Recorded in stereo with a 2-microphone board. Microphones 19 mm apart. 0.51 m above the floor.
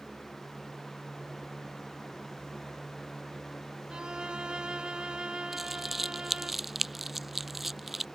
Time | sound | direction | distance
3.9 | a violin | 60° right (ahead or behind) | ?
5.5 | crumpling | 10° right (ahead or behind) | ?